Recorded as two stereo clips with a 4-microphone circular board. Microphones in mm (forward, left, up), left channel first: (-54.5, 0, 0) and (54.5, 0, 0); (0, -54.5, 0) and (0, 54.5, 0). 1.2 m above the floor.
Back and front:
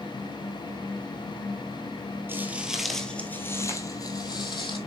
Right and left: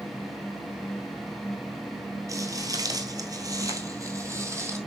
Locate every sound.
2.3 s footsteps: 55° left, 1.4 m; by 4.8 s 150° left, 2.5 m